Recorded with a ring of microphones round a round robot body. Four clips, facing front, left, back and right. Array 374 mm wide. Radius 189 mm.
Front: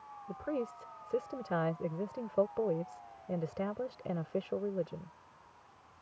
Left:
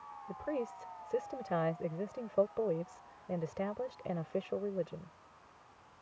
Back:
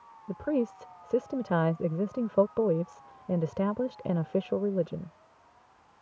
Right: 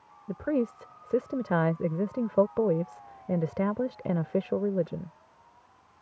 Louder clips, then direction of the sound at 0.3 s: Right 10 dB, back 8 dB; 130° right.